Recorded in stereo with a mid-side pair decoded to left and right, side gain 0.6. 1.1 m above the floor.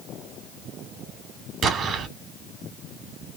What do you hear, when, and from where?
1.6 s an explosion: 45° right, 2.5 m